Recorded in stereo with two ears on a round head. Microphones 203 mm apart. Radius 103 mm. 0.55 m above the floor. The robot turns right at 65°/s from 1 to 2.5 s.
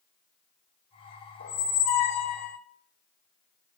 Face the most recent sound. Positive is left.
turn(degrees=105)